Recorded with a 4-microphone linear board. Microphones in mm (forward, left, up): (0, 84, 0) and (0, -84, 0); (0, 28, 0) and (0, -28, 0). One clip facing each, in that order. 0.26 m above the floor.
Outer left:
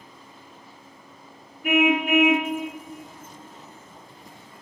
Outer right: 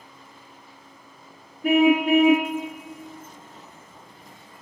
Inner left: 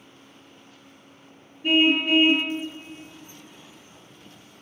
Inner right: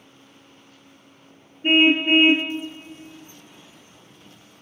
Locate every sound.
1.6 s a car horn: 35° right (ahead or behind), 3 m